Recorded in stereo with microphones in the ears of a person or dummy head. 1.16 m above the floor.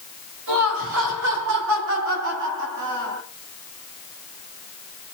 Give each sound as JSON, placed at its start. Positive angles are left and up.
{"t": 0.5, "sound": "laughter", "side_deg": -70, "distance_m": 5.5}